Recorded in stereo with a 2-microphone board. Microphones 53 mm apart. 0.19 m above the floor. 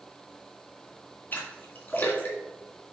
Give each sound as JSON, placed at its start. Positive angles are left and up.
{"t": 1.3, "sound": "a splash", "side_deg": 40, "distance_m": 2.5}